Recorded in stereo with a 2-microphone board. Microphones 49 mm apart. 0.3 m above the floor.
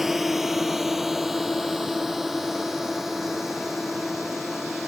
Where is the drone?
5° right (ahead or behind).